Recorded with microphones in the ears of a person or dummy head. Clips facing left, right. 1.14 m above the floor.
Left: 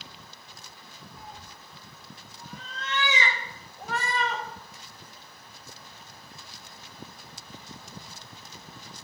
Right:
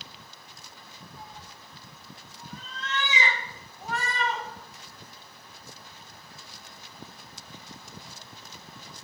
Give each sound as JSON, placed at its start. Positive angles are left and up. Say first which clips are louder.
{"t": 1.2, "sound": "a cat meowing", "louder": "left 1 dB", "side_deg": 65, "distance_m": 1.9}